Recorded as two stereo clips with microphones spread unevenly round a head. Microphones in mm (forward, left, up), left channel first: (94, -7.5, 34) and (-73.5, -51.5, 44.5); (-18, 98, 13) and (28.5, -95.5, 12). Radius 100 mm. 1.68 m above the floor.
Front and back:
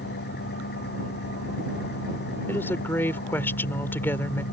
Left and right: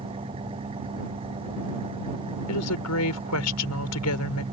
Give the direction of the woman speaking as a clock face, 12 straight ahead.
9 o'clock.